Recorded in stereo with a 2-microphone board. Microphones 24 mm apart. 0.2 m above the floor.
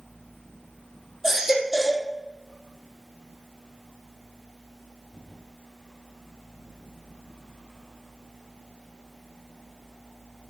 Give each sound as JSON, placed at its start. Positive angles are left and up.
{"t": 1.2, "sound": "a baby crying", "side_deg": -20, "distance_m": 3.5}